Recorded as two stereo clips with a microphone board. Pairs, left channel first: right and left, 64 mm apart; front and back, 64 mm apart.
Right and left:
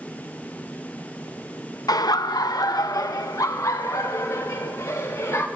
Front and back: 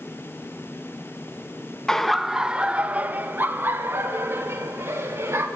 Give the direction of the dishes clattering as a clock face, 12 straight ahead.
No dishes clattering in this recording.